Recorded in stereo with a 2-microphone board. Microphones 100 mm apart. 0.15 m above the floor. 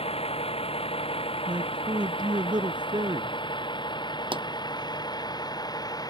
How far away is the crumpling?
I don't hear crumpling.